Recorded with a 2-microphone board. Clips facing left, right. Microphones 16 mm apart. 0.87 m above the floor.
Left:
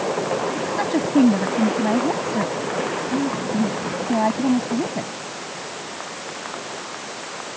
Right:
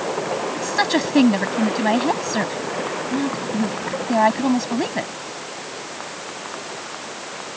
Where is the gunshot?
No gunshot in this recording.